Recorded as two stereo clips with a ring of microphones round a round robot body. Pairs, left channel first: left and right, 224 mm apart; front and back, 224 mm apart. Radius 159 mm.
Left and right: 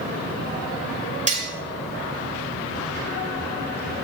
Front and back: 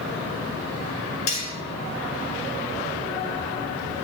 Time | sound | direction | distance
1.3 | cutlery clinking | 35° right | 7 m